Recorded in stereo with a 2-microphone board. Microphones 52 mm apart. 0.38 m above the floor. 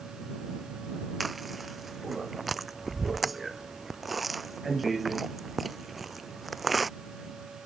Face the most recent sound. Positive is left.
turn(degrees=0)  # may be behind; listen again after turning